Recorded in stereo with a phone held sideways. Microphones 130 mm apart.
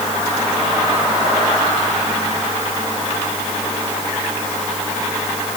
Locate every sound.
Only background noise.